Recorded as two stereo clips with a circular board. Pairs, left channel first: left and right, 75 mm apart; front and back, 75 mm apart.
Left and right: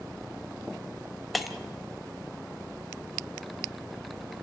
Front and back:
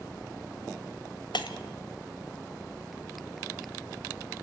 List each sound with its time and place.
1.3 s breaking glass: straight ahead, 1.8 m